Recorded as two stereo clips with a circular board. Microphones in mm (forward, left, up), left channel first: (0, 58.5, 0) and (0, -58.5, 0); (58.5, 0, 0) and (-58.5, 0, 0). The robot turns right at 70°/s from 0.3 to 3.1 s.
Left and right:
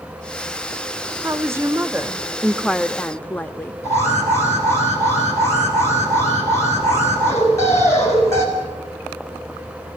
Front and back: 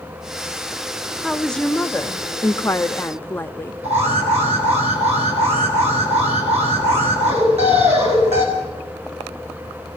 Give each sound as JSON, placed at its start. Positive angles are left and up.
{"t": 1.2, "sound": "a woman speaking", "azimuth_deg": -95, "distance_m": 0.6}
{"t": 3.8, "sound": "an alarm", "azimuth_deg": 155, "distance_m": 7.5}